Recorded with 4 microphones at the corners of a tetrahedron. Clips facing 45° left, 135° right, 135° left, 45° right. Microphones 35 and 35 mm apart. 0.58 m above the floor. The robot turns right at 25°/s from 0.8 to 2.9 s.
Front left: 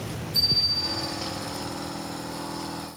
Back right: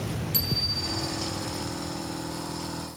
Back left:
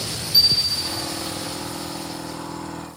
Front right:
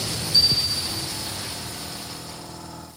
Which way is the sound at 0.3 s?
150° right.